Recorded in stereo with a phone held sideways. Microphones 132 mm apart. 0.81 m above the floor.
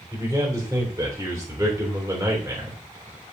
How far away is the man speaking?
About 3.5 m.